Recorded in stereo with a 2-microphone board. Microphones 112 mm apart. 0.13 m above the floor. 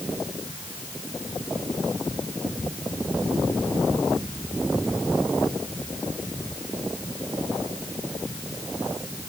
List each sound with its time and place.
Only background noise.